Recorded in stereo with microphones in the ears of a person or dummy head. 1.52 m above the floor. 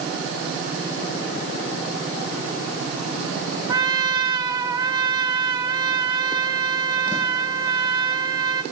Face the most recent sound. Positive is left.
turn(degrees=-20)  # may be behind; listen again after turning